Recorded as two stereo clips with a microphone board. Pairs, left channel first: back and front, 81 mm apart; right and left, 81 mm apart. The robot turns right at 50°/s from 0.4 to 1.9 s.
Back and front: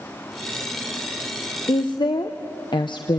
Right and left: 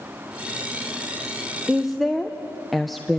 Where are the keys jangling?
No keys jangling in this recording.